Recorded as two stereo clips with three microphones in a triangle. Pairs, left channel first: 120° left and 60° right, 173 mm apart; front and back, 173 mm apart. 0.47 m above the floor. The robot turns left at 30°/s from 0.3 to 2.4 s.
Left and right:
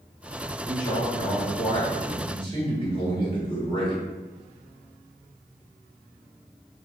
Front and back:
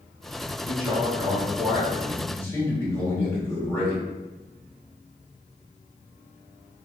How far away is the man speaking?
About 1.7 m.